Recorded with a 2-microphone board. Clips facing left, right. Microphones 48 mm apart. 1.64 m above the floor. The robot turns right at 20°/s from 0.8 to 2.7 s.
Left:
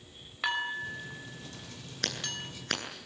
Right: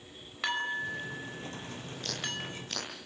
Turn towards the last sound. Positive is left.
turn(degrees=65)  # may be behind; listen again after turning